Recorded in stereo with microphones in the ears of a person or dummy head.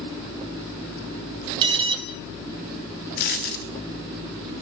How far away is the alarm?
About 1.6 m.